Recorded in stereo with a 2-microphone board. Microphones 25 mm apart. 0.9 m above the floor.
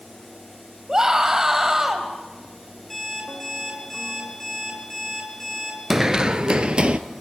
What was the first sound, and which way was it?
A scream, 25° right (ahead or behind).